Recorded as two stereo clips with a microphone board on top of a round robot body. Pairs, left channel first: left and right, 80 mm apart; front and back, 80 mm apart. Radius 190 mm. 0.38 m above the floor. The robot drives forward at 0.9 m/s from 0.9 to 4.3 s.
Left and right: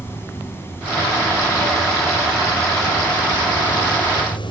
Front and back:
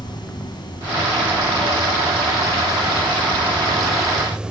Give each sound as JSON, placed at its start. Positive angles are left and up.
{"t": 0.0, "sound": "running water", "azimuth_deg": 30, "distance_m": 3.0}